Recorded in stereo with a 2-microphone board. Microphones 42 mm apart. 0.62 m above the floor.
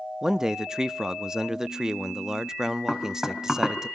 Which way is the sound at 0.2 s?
15° right (ahead or behind).